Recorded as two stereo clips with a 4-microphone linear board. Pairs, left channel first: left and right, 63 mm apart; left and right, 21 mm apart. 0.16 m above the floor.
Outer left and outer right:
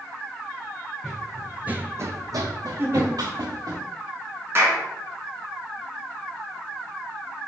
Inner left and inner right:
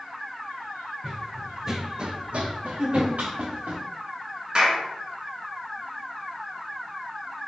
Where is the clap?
40° right (ahead or behind), 1.2 m.